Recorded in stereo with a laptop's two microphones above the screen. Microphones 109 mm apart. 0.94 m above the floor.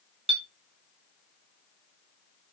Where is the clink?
55° right (ahead or behind), 0.5 m.